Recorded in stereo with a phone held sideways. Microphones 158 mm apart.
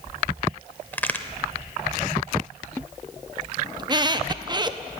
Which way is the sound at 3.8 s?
25° right (ahead or behind).